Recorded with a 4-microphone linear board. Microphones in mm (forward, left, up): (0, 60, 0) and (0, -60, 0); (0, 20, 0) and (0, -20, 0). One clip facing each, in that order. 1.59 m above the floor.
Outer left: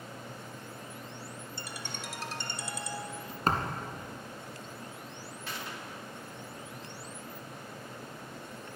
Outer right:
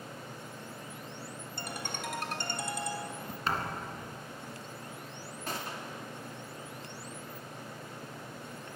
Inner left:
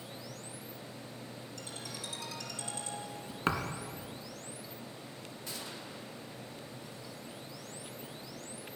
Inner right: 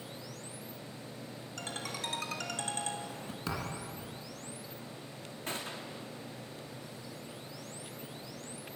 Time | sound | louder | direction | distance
1.6 | a ringtone | outer right 6 dB, inner right 7 dB | 50° right (ahead or behind) | 1.5 m
3.5 | a thud | outer left 4 dB, inner left 6 dB | 45° left (ahead or behind) | 2 m
5.5 | a gunshot | outer right 3 dB, inner right 5 dB | 40° right (ahead or behind) | 2 m